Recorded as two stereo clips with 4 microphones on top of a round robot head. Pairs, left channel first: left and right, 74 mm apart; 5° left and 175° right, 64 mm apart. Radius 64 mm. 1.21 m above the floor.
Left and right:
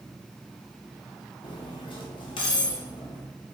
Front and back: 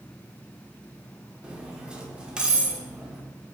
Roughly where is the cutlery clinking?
Left.